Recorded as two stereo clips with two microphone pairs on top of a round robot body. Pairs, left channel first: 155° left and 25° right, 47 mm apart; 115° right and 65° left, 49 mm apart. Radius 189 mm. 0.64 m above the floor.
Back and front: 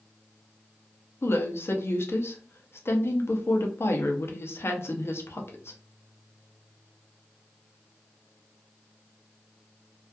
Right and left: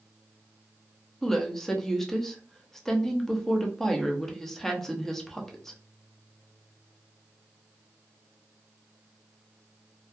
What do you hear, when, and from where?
1.2 s a woman speaking: 155° left, 0.7 m